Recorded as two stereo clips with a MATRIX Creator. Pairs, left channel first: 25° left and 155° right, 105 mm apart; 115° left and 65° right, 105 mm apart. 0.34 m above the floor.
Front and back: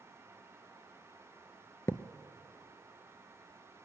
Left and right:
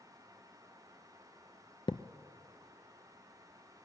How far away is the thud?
About 0.5 m.